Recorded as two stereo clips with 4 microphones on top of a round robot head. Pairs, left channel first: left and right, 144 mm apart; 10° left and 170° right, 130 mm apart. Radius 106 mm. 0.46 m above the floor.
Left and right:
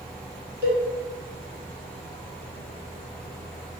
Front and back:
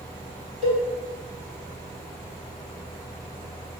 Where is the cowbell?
115° right, 0.9 m.